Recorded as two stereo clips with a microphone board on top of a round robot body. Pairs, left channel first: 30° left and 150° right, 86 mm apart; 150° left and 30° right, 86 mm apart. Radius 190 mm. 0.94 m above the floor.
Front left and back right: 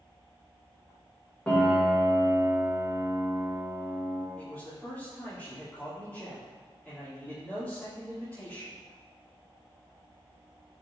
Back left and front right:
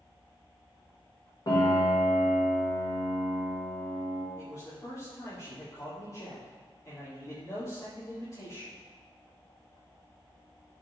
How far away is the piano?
About 2 m.